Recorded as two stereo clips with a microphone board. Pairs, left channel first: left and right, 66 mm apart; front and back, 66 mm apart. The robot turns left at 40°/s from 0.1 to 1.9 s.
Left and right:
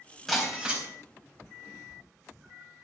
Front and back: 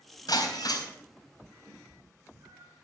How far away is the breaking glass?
About 3.5 m.